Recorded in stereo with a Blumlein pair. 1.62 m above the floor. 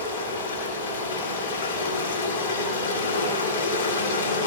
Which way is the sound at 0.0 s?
70° left.